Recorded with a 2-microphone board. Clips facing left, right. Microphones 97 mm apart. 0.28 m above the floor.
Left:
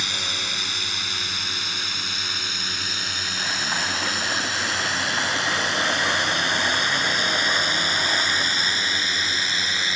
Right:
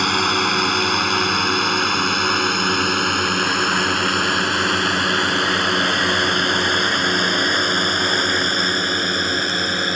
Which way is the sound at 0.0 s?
60° right (ahead or behind).